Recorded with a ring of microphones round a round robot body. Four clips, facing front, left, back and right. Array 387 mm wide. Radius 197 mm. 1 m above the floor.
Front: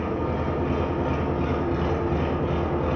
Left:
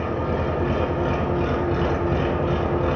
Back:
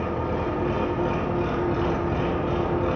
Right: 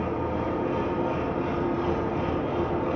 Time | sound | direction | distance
0.0 | an engine running | 90° left | 5.5 m